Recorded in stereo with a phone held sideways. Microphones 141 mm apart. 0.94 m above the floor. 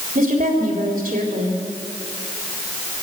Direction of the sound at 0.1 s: 85° right.